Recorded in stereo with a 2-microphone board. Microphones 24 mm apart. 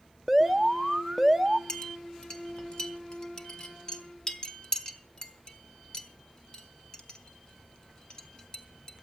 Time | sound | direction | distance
0.3 | an alarm | 5° right (ahead or behind) | 0.7 m
1.7 | a clink | 35° left (ahead or behind) | 1.3 m